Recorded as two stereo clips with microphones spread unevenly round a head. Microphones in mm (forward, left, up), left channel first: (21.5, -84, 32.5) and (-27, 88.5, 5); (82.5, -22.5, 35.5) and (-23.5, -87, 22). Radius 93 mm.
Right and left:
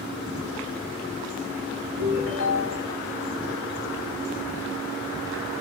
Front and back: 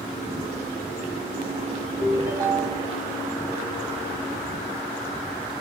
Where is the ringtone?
90° right, 4 m.